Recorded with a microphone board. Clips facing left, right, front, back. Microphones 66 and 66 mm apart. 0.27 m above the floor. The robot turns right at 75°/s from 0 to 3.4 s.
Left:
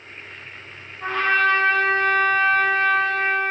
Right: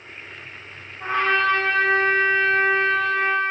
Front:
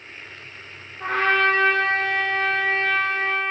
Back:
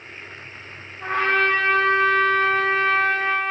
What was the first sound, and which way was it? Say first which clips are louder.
A trumpet: left 1 dB, front 1 dB; 25° right.